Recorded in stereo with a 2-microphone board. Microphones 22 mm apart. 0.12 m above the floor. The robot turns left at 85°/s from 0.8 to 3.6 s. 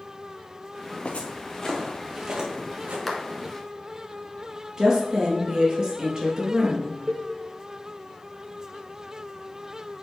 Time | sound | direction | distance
1.1 | footsteps | 75° left (ahead or behind) | 1.5 m
3.1 | a clap | centre (ahead or behind) | 1.5 m
4.8 | a woman speaking | 30° right (ahead or behind) | 3 m
7.1 | a cowbell | 30° right (ahead or behind) | 0.5 m